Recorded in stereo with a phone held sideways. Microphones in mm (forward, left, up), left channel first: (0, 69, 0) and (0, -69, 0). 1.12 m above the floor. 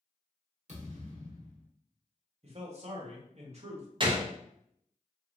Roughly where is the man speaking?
Right.